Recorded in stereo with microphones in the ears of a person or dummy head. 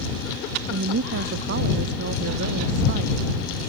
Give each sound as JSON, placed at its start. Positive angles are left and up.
{"t": 0.7, "sound": "a woman speaking", "side_deg": -55}